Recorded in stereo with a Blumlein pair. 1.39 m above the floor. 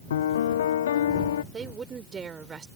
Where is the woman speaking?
20° right.